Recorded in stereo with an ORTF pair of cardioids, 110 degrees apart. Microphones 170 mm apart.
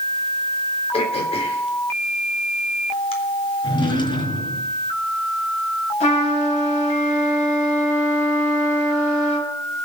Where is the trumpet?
45° left, 7 m.